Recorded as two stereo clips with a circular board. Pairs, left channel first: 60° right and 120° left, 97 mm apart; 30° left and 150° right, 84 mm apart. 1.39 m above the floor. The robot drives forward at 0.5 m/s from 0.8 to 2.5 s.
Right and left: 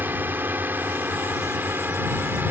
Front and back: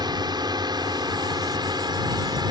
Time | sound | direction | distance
0.0 | a drone | 175° right | ?